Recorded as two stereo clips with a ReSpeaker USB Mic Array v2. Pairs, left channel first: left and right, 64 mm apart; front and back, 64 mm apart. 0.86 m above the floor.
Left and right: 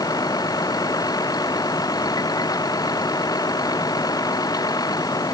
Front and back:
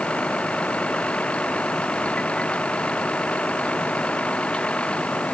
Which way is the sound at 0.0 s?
75° left.